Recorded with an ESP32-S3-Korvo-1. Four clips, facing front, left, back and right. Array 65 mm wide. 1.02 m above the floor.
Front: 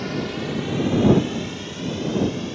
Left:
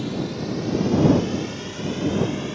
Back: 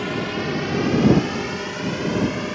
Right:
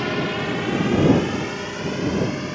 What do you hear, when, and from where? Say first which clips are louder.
0.0 s a drone: right 4 dB, back 2 dB; 115° right; by 2.6 s 155° right